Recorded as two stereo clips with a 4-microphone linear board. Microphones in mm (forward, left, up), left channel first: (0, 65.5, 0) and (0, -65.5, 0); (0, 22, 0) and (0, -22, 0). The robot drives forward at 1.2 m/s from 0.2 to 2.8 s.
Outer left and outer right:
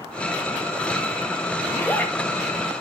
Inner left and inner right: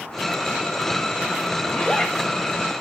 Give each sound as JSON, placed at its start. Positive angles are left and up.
{"t": 1.6, "sound": "a zipper", "side_deg": 15, "distance_m": 0.9}